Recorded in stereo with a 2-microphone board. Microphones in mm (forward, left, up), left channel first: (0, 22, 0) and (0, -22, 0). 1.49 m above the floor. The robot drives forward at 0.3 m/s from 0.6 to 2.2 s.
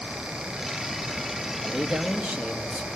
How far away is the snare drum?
I don't hear a snare drum.